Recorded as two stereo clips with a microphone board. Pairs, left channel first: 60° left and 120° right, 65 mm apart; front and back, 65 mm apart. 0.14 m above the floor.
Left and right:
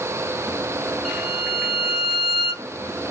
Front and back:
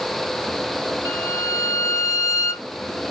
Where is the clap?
No clap in this recording.